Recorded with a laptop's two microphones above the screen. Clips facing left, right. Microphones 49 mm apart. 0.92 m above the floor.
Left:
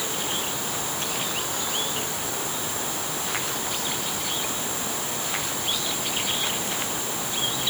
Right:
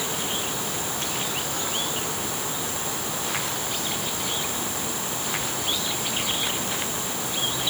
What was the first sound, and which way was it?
Only background noise.